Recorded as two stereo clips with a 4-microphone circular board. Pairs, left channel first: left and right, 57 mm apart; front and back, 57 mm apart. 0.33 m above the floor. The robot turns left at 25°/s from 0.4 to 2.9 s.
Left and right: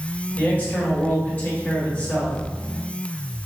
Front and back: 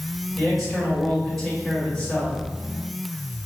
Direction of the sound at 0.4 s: 95° left.